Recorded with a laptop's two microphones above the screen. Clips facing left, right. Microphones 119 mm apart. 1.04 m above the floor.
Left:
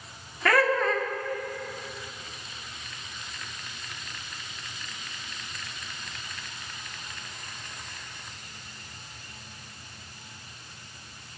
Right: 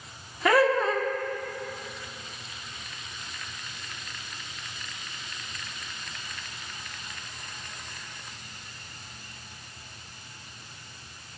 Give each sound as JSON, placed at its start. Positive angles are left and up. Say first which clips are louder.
{"t": 0.5, "sound": "laughter", "louder": "right 2 dB", "side_deg": -15, "distance_m": 1.0}